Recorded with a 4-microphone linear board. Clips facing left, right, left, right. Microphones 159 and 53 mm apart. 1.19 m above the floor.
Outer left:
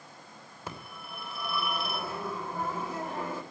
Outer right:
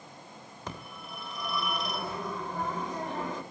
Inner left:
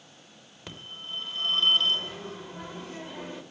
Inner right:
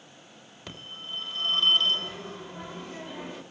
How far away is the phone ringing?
About 3.5 m.